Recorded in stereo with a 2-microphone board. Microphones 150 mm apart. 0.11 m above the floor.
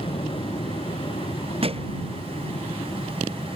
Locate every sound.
0.0 s an aircraft: 35° left (ahead or behind)
1.6 s a thud: 40° right (ahead or behind)